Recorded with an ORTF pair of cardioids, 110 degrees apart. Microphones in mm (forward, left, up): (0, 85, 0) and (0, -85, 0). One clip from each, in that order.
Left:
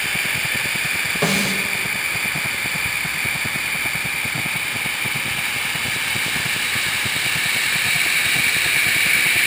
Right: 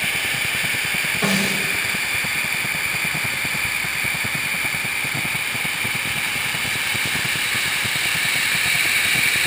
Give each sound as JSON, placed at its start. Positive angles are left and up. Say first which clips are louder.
{"t": 1.2, "sound": "a snare drum", "louder": "left 1 dB", "azimuth_deg": 60, "distance_m": 8.0}